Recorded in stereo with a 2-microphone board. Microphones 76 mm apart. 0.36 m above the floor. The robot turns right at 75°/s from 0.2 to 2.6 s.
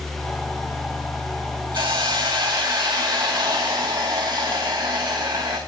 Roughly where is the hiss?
Behind right.